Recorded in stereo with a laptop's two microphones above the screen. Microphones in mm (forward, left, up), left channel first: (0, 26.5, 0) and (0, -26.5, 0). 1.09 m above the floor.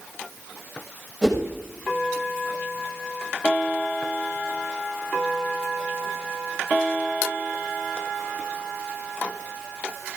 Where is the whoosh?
5° left (ahead or behind), 6 m.